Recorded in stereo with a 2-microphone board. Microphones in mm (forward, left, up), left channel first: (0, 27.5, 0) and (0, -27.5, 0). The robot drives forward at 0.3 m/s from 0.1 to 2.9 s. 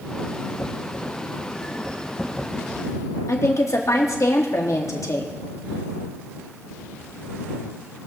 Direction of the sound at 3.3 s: 70° left (ahead or behind).